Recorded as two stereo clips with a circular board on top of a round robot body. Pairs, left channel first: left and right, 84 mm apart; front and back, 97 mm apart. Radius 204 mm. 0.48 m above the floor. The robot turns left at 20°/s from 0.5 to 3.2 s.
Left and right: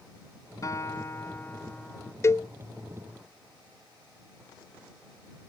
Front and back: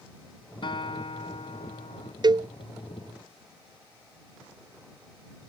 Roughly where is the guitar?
Ahead left.